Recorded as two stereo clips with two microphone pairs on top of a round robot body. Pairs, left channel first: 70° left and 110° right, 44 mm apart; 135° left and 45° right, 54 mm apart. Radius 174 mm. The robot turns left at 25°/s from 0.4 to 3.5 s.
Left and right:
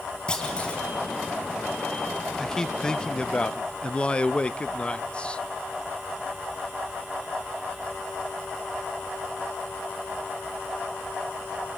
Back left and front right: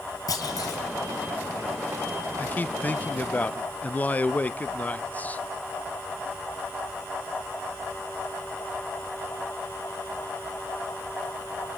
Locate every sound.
0.3 s a clunk: 140° left, 1.3 m; by 0.8 s 130° left, 1.3 m
2.4 s a man speaking: 140° left, 0.7 m; by 5.4 s 110° left, 0.7 m